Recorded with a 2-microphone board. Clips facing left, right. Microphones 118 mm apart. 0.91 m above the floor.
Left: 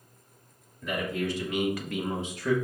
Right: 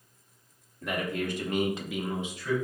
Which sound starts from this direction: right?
A man speaking, at 0.8 s.